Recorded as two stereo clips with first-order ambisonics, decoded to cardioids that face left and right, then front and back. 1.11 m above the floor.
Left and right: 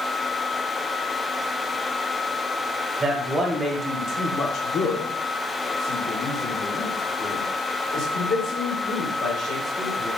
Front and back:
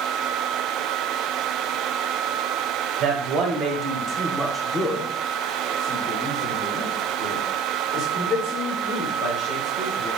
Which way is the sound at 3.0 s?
160° right.